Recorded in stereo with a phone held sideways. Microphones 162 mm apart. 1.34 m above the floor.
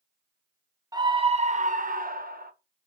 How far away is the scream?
About 0.7 m.